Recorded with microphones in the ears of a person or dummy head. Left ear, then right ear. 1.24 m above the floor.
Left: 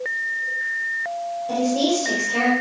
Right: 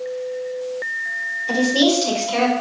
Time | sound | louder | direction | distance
1.5 | a woman speaking | right 4 dB | 60° right (ahead or behind) | 4.5 m